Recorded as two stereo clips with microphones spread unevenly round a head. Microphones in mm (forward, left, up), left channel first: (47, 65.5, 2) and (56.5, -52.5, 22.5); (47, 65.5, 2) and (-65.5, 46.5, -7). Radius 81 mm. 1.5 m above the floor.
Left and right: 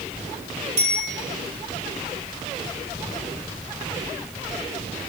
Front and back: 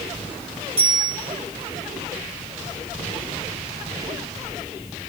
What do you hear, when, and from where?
0.8 s a bicycle bell: 110° right, 5.5 m